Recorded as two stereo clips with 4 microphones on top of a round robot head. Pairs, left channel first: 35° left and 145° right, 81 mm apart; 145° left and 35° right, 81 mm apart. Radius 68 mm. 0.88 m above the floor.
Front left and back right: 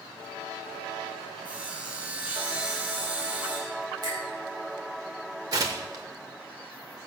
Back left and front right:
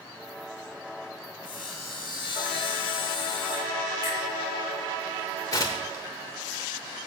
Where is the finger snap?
175° left, 4.5 m.